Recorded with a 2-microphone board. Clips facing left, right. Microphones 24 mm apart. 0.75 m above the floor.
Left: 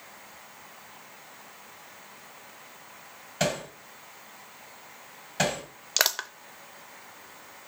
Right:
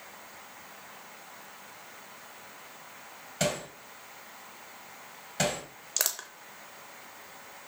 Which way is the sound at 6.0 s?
40° left (ahead or behind).